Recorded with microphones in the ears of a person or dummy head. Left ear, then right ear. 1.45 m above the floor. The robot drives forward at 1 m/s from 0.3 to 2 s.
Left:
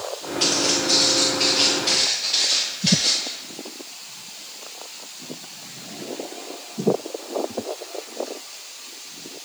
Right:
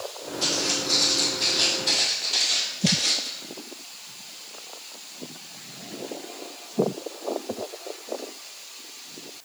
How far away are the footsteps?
About 1.8 m.